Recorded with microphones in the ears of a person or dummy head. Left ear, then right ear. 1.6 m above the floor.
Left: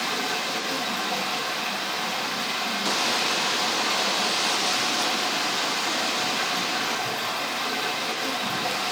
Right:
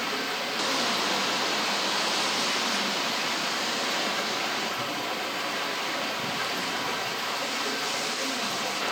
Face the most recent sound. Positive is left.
turn(degrees=20)  # may be behind; listen again after turning